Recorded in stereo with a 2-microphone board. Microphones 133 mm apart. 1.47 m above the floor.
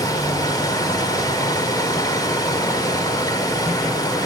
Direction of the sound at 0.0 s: 30° left (ahead or behind).